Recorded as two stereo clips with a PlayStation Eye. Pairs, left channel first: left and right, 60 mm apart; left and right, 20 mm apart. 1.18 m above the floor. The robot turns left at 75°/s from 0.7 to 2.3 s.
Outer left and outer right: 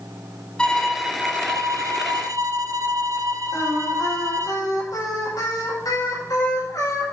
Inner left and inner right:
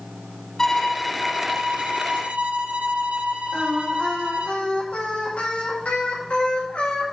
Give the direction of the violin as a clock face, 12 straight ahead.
12 o'clock.